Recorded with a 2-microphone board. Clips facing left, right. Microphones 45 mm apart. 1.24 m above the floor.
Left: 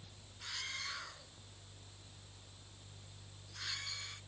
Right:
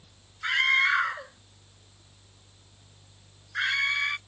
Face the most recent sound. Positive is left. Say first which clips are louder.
# right 22 dB
turn(degrees=-75)  # may be behind; listen again after turning